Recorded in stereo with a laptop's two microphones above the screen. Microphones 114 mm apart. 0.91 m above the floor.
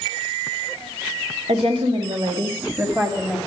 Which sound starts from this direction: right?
A woman speaking, at 1.5 s.